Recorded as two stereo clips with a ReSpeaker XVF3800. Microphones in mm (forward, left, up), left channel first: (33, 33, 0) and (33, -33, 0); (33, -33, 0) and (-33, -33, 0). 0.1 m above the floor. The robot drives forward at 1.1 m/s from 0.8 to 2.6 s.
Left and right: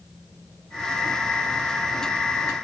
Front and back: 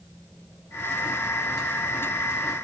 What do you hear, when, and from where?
Only background noise.